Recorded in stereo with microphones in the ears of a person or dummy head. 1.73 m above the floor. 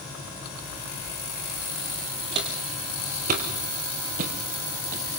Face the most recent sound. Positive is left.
turn(degrees=-50)  # may be behind; listen again after turning